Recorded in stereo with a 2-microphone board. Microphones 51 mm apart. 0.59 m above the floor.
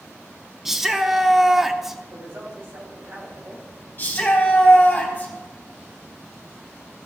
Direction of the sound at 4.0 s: 35° left (ahead or behind).